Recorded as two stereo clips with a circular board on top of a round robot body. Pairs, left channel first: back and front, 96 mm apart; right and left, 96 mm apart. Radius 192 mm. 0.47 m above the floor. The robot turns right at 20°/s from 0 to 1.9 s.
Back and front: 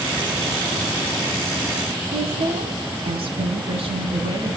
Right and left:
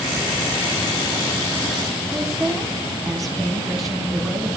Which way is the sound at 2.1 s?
Straight ahead.